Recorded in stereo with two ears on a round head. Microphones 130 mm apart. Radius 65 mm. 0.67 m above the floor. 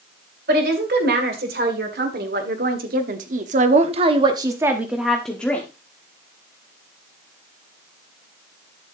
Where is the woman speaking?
70° right (ahead or behind), 3 m; by 5.7 s 15° left (ahead or behind), 1.3 m.